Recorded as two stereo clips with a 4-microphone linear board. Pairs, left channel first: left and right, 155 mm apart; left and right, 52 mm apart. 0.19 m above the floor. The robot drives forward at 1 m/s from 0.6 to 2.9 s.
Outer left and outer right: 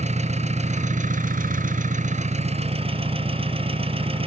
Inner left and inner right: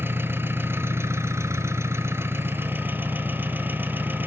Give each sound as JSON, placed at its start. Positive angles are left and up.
{"t": 0.0, "sound": "an engine running", "side_deg": -55, "distance_m": 1.6}